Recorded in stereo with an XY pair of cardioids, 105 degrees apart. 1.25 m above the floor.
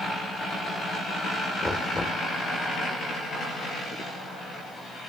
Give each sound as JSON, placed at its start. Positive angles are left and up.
{"t": 1.6, "sound": "knocking", "azimuth_deg": 15, "distance_m": 3.0}